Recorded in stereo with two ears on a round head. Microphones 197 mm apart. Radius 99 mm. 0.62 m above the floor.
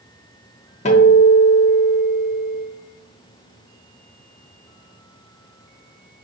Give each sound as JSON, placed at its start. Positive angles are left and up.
{"t": 0.8, "sound": "a guitar", "side_deg": 30, "distance_m": 0.6}